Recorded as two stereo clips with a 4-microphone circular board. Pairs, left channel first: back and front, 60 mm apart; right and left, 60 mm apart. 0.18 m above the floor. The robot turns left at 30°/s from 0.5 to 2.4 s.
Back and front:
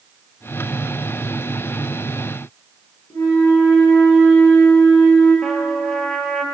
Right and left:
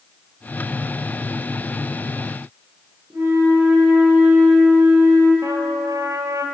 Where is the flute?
145° left, 2.5 m.